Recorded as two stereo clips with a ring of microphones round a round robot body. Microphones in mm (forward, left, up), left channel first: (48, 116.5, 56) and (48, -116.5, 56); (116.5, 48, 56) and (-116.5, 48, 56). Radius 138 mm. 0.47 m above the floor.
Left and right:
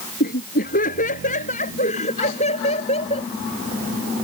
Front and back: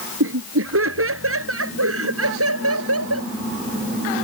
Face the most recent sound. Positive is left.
turn(degrees=160)